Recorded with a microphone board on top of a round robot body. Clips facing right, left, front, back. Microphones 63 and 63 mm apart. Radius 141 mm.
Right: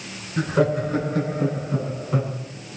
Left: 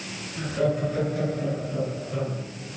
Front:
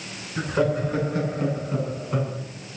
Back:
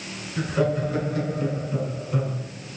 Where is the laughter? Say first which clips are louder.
Right 4 dB, front 1 dB; 55° right, 9.5 m.